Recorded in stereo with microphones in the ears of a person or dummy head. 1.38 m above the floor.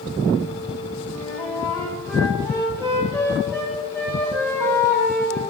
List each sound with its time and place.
1.1 s a flute: 15° left (ahead or behind), 0.7 m